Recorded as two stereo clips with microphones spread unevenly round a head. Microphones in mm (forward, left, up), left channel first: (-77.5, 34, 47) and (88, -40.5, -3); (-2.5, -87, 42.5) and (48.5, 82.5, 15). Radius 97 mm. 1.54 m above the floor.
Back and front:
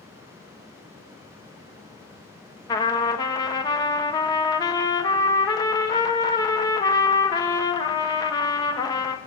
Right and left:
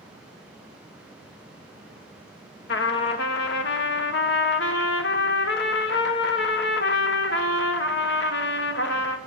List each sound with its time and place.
2.7 s a trumpet: 140° right, 0.8 m